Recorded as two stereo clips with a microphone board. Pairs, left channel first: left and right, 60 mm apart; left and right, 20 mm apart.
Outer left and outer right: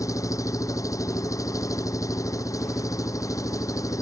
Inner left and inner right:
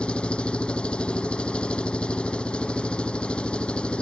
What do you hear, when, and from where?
0.0 s an engine running: 60° left (ahead or behind)